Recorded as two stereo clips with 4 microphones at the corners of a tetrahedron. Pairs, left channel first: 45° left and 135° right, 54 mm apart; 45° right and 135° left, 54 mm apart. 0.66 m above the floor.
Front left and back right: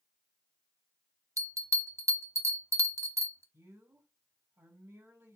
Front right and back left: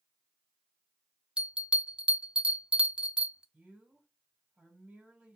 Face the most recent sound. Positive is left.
turn(degrees=-150)